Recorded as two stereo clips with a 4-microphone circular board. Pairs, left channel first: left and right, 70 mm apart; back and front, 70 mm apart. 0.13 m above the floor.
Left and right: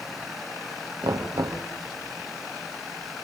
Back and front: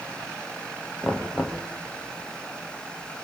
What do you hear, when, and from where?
1.0 s knocking: 80° right, 2.5 m